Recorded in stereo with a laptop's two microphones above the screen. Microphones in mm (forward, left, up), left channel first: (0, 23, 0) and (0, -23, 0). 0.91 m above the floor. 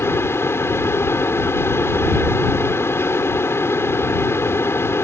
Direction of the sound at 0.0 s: 65° left (ahead or behind).